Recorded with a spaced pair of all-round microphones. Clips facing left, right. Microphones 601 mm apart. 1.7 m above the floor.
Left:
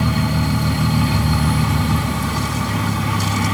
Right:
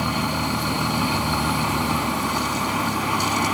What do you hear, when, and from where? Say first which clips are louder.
0.0 s a vehicle: left 5 dB; 40° left (ahead or behind)